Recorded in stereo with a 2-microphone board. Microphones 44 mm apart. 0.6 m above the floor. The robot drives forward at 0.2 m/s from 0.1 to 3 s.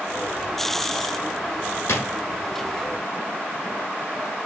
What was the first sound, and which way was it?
A drawer, 75° left (ahead or behind).